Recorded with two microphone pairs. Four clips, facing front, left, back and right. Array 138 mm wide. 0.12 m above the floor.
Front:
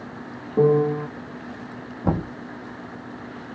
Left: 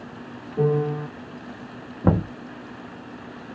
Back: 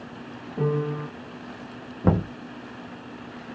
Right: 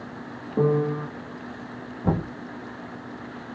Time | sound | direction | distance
0.6 | a piano | 40° right | 1.7 m
2.0 | knocking | 115° left | 1.1 m